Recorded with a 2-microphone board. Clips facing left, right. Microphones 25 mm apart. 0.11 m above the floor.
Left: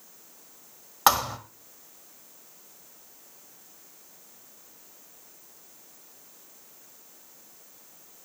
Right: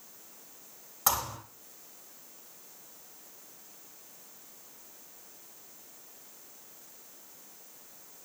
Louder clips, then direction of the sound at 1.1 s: Left 9 dB; 50° left (ahead or behind).